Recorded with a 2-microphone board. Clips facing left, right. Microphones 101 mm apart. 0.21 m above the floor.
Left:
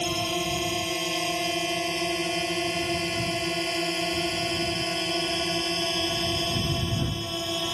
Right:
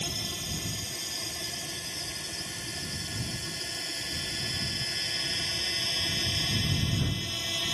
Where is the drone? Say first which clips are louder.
Left 12 dB; 65° left (ahead or behind); by 7.7 s 40° left (ahead or behind).